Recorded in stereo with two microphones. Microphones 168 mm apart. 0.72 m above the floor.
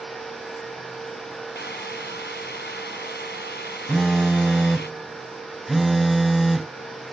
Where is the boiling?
85° left.